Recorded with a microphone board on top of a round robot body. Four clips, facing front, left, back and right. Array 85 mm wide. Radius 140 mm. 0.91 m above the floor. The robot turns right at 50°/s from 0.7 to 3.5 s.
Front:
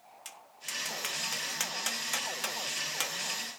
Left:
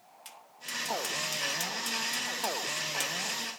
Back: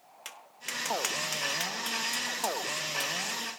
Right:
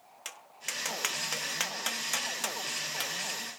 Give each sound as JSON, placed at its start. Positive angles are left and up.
{"t": 0.2, "sound": "tapping", "azimuth_deg": -130, "distance_m": 0.5}